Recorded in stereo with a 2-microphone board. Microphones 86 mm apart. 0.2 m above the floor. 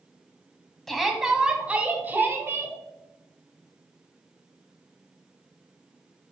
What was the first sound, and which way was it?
A shout, 5° left (ahead or behind).